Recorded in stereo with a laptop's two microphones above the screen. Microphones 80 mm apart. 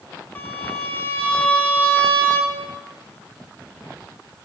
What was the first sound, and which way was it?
A violin, 20° left (ahead or behind).